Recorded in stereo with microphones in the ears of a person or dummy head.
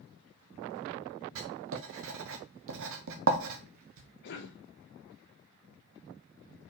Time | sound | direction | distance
1.4 | writing | 70° right (ahead or behind) | 0.7 m
4.2 | a cough | 70° left (ahead or behind) | 1.0 m